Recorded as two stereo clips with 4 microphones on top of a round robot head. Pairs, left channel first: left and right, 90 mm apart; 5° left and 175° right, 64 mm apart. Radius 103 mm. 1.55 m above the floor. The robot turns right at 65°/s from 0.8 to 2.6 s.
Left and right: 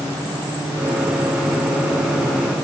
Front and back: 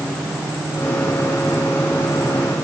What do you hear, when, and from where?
Only background noise.